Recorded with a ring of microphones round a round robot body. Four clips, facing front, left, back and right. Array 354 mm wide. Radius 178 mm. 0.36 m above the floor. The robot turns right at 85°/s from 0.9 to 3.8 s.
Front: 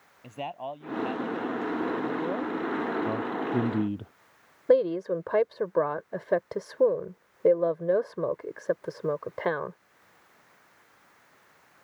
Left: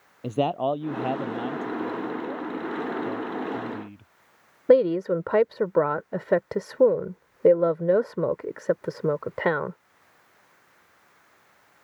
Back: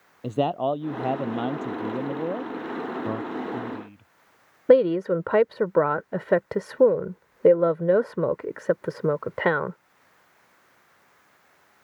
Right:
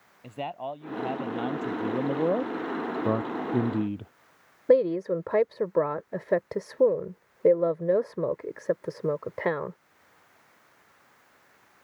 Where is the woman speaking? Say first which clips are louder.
Left 3 dB, back 5 dB; 155° left.